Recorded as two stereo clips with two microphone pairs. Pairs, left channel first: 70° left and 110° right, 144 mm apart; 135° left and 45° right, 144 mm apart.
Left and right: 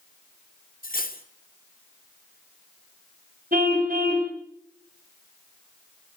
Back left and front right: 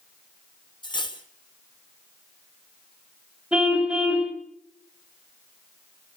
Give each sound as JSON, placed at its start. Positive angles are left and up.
{"t": 0.8, "sound": "cutlery clinking", "azimuth_deg": 80, "distance_m": 2.0}
{"t": 3.5, "sound": "a car horn", "azimuth_deg": -125, "distance_m": 4.0}